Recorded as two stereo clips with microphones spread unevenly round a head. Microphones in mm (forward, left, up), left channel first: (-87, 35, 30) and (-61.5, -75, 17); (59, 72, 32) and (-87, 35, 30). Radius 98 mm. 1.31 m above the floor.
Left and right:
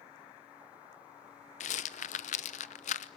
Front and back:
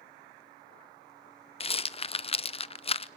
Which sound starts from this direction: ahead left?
A rattle, at 1.6 s.